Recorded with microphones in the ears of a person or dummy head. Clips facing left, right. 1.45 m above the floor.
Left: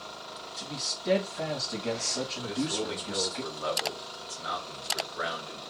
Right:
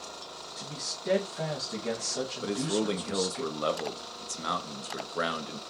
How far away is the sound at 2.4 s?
About 0.8 m.